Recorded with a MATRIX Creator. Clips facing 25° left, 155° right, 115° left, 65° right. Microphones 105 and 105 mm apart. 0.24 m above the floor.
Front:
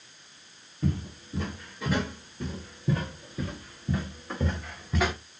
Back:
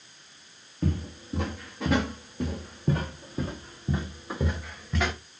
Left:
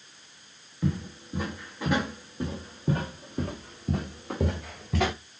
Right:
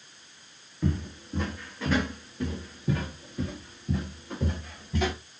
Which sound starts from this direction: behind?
Footsteps, at 0.8 s.